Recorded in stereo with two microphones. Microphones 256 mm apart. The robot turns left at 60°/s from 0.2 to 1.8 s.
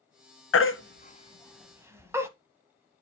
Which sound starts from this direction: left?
A baby crying, at 0.5 s.